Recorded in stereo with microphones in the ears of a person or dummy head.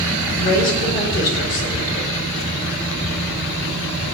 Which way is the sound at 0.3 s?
40° left (ahead or behind).